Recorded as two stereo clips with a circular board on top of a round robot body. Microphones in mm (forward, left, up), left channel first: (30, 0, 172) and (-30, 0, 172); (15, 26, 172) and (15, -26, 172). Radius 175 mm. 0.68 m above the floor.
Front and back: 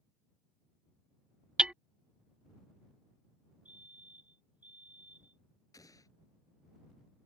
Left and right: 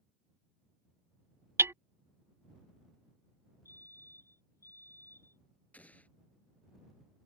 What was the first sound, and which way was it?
Hammering, 110° right.